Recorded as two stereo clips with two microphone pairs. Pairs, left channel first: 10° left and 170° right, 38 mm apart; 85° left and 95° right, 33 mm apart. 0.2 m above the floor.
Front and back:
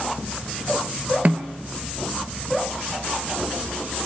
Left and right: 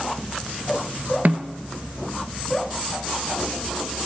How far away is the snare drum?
About 1.2 m.